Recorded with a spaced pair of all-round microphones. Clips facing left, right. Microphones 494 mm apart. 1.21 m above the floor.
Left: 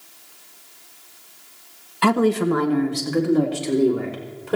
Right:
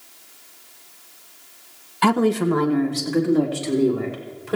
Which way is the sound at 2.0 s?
5° right (ahead or behind).